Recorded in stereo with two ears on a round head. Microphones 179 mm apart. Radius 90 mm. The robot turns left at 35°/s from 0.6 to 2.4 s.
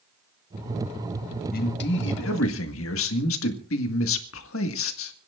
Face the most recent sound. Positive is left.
turn(degrees=100)